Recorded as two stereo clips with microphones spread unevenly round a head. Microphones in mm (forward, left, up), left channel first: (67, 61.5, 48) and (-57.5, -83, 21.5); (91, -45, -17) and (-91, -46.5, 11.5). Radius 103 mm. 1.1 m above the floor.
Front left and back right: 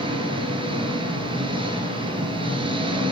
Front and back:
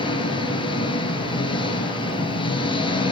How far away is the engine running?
About 5.5 m.